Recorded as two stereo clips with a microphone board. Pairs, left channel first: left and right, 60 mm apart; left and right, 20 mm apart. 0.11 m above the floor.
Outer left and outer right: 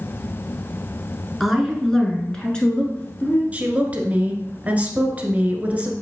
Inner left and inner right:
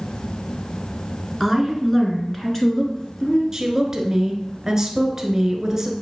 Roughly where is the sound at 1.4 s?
Centre.